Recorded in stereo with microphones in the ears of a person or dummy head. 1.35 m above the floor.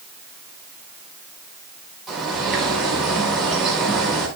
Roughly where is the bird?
Centre.